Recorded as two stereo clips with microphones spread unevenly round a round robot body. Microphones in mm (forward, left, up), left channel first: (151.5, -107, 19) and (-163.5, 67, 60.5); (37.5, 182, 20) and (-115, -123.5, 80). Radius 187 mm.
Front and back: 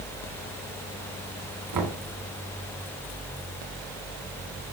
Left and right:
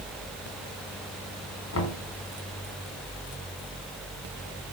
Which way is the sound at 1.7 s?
110° left.